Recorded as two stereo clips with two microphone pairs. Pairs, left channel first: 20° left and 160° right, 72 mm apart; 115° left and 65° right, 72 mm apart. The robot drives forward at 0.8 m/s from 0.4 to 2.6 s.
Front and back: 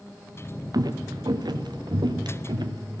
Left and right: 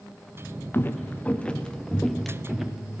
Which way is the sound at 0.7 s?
175° left.